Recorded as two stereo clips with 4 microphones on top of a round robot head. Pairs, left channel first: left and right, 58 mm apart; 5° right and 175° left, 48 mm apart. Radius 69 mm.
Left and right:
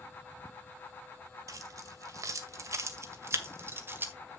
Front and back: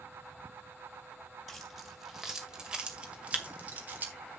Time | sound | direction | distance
1.5 | keys jangling | 95° right | 2.5 m